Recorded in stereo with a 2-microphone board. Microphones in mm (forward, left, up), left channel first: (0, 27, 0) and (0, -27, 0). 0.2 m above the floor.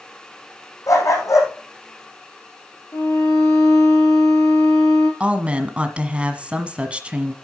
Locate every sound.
0.9 s a dog barking: 75° left (ahead or behind), 4 m
2.9 s a violin: 65° left (ahead or behind), 4.5 m
5.2 s a woman speaking: 20° right (ahead or behind), 1.4 m